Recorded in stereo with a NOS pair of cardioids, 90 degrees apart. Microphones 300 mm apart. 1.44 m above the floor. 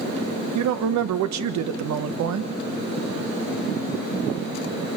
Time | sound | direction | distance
0.6 | a woman speaking | 65° right | 1.3 m